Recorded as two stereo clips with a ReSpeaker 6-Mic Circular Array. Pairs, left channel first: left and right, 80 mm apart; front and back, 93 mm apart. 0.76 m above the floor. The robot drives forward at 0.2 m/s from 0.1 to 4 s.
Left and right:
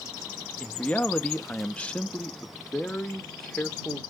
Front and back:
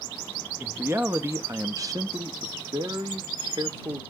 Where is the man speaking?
140° left, 0.6 m; by 4.0 s 170° left, 1.1 m.